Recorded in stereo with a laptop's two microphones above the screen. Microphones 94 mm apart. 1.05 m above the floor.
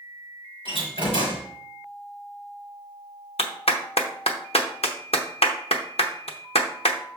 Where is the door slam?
70° left (ahead or behind), 3.5 m.